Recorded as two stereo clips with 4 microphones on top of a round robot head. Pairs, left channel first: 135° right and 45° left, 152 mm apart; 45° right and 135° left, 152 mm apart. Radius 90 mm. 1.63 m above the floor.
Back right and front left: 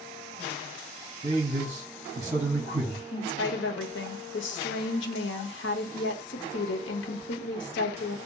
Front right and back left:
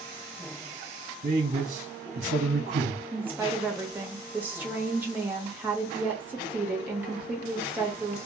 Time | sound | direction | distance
1.2 | a man speaking | 105° left | 0.7 m
3.1 | a woman speaking | 145° right | 0.6 m